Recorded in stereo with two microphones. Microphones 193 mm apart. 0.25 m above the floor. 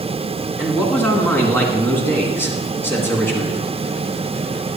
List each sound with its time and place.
0.6 s a man speaking: 10° left (ahead or behind), 2 m